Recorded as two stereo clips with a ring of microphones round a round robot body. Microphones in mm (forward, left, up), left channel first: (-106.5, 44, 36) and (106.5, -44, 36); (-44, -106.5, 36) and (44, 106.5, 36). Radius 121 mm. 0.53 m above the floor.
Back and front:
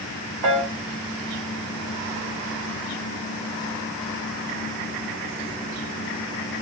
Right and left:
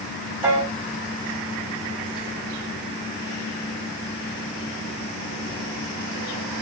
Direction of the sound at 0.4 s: 10° right.